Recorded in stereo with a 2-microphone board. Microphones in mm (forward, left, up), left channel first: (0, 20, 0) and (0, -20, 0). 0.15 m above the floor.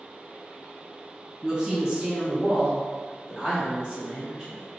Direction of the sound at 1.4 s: 20° right (ahead or behind).